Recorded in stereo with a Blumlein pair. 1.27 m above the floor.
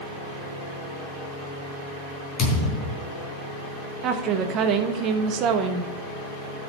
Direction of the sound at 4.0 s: 35° right.